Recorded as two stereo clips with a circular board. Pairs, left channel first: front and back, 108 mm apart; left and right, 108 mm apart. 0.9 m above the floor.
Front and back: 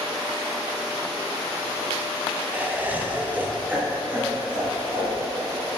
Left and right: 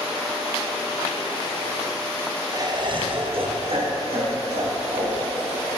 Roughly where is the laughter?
Behind right.